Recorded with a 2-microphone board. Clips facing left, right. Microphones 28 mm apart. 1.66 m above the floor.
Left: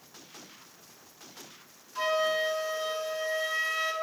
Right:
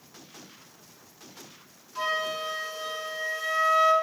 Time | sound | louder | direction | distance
1.9 | a flute | left 2 dB | 10° right (ahead or behind) | 4.5 m